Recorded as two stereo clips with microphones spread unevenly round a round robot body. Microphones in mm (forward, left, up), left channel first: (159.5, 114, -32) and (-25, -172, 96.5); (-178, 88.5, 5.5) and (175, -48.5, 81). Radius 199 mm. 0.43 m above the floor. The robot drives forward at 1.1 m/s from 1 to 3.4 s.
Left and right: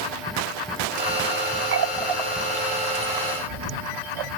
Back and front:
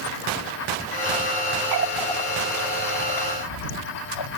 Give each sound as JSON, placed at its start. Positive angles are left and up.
{"t": 1.7, "sound": "a running tap", "azimuth_deg": -55}